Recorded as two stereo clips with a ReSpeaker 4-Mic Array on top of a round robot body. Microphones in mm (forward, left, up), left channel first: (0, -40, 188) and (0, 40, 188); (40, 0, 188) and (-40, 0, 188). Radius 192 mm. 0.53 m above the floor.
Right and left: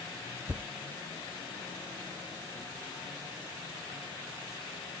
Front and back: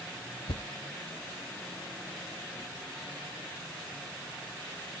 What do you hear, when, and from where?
0.5 s a thud: 20° left